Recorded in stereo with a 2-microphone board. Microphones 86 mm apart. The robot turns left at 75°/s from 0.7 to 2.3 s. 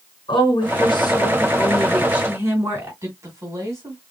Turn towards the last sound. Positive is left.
turn(degrees=-35)  # may be behind; listen again after turning